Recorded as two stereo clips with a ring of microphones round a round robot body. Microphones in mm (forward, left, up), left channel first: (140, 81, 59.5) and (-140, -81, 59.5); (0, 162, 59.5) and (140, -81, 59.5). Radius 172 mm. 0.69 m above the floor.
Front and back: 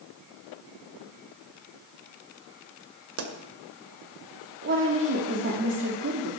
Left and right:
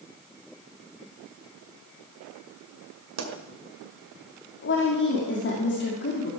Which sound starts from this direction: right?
A pop, at 3.2 s.